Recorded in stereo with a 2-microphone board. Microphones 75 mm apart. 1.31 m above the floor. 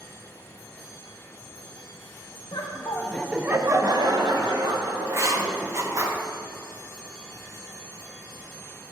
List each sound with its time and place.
2.5 s laughter: 60° left (ahead or behind), 0.8 m; by 6.1 s 70° right (ahead or behind), 3 m
5.1 s writing: 40° right (ahead or behind), 0.7 m